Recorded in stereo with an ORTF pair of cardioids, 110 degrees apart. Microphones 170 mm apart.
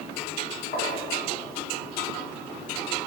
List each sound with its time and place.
0.7 s tapping: 50° left, 1.2 m